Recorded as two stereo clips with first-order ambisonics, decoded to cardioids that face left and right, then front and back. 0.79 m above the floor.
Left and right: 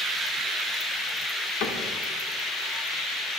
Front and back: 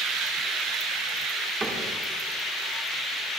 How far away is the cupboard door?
About 2.5 m.